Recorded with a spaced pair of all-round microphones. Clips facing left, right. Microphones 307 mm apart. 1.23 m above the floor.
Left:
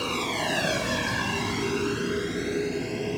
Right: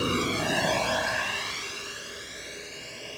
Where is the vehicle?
25° right (ahead or behind); by 3.2 s 75° left (ahead or behind).